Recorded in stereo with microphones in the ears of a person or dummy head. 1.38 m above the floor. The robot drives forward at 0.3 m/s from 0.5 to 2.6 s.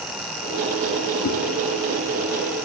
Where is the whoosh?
40° left (ahead or behind), 1.7 m.